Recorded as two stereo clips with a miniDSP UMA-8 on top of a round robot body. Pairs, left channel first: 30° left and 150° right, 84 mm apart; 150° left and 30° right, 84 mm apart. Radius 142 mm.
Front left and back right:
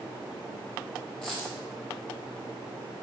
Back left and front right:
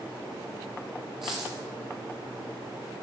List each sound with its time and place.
1.2 s a dropped coin: 55° right, 0.8 m